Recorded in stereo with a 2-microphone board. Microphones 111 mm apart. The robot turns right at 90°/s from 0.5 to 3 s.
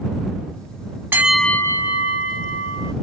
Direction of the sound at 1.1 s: 20° right.